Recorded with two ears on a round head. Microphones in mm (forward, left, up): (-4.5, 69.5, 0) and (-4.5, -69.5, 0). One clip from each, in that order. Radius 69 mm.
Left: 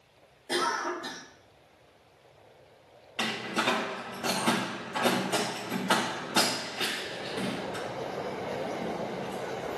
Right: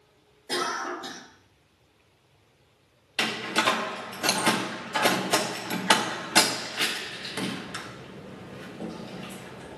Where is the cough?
20° right (ahead or behind), 2 m.